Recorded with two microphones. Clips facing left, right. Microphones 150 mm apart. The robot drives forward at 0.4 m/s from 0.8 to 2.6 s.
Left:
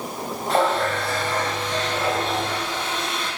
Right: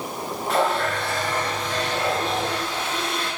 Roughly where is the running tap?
Left.